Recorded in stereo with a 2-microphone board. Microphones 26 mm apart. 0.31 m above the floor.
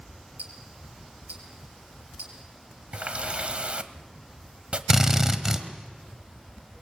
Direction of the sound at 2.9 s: 50° right (ahead or behind).